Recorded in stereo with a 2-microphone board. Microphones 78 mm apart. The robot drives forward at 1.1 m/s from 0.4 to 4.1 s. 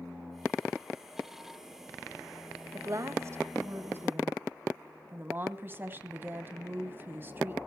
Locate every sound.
2.7 s a woman speaking: 45° right (ahead or behind), 1.6 m; by 7.6 s 30° right (ahead or behind), 2.5 m